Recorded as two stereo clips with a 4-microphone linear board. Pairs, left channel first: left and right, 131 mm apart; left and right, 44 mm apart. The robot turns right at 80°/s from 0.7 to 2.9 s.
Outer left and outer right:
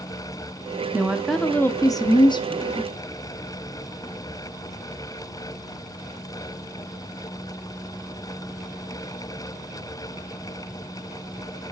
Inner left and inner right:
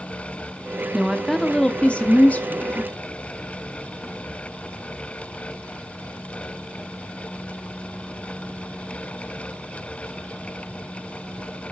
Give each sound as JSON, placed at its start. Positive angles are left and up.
{"t": 0.9, "sound": "a woman speaking", "azimuth_deg": -25, "distance_m": 0.7}